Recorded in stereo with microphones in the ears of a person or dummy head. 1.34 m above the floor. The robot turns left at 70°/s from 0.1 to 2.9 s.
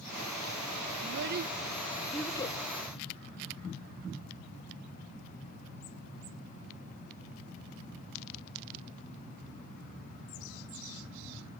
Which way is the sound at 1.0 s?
75° right (ahead or behind).